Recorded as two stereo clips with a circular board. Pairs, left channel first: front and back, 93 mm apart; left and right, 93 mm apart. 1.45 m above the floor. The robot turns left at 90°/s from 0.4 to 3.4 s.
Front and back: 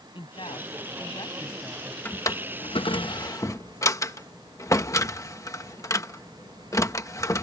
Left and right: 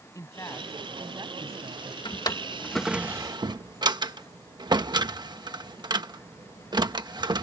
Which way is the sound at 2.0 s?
70° left.